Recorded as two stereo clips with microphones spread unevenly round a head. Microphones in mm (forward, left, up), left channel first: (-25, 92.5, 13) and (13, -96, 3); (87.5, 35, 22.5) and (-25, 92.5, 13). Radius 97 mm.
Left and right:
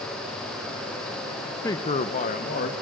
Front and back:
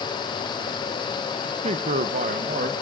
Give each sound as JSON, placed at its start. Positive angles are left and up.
{"t": 1.6, "sound": "a man speaking", "azimuth_deg": 180, "distance_m": 0.5}